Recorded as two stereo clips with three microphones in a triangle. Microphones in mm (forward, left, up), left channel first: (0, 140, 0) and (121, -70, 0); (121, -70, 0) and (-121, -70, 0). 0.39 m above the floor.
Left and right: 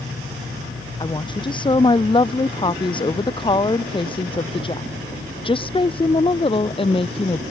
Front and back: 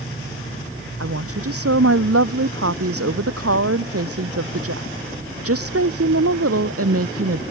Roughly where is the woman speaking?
Behind.